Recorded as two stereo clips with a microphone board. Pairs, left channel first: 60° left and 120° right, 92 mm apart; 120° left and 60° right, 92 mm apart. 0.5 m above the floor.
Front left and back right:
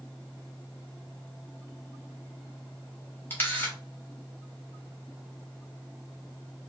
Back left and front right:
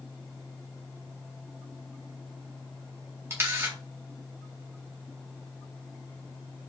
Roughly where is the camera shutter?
Ahead.